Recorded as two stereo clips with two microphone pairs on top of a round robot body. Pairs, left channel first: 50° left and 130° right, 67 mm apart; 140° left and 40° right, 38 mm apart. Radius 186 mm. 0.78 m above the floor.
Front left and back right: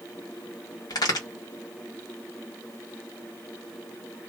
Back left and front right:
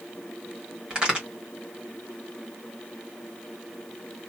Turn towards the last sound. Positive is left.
turn(degrees=25)